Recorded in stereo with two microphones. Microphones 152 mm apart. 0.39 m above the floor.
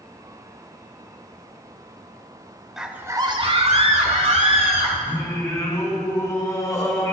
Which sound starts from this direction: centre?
A scream, at 2.8 s.